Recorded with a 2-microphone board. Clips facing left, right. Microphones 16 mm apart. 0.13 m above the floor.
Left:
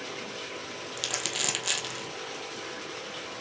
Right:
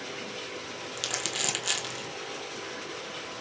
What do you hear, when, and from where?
1.0 s crumpling: 10° left (ahead or behind), 1.1 m